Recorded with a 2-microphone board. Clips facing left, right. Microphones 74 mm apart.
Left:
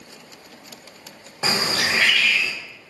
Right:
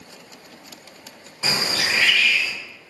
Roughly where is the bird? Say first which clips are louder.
Left 2 dB; left.